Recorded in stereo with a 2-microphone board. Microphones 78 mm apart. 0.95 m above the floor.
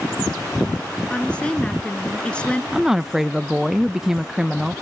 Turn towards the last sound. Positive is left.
turn(degrees=-5)  # may be behind; listen again after turning